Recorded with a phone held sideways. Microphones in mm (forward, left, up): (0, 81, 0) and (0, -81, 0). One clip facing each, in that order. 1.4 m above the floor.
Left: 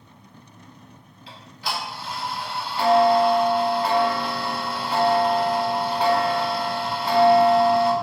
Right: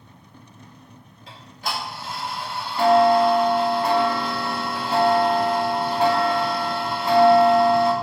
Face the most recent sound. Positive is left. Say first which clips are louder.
# right 1 dB
turn(degrees=-50)  # may be behind; listen again after turning